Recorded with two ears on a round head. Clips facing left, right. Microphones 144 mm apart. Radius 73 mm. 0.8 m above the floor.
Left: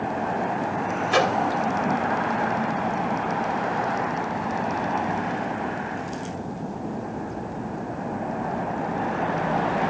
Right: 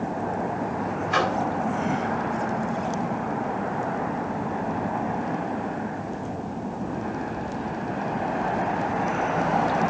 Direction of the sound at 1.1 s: 40° left (ahead or behind).